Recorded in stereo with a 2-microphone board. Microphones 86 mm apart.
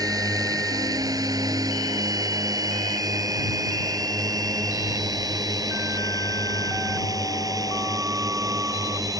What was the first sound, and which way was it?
A drone, 45° right (ahead or behind).